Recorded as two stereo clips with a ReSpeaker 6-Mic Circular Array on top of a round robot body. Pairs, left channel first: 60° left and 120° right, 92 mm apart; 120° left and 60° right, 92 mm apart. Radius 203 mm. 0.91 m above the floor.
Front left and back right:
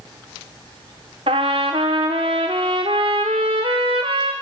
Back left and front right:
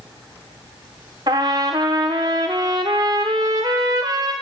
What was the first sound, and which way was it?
A trumpet, 105° right.